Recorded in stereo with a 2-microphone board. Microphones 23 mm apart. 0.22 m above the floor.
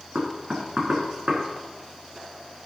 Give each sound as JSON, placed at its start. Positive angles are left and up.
{"t": 0.1, "sound": "knocking", "side_deg": -30, "distance_m": 3.0}